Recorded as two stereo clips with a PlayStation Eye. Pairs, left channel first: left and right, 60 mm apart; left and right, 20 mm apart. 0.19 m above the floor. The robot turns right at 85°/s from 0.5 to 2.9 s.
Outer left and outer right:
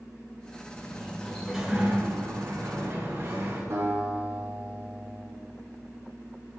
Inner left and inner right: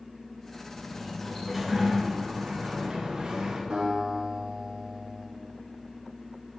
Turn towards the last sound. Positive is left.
turn(degrees=-55)  # may be behind; listen again after turning